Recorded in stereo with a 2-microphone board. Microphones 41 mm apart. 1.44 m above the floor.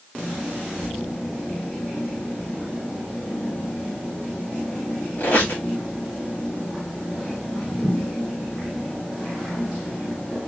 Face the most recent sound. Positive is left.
turn(degrees=50)  # may be behind; listen again after turning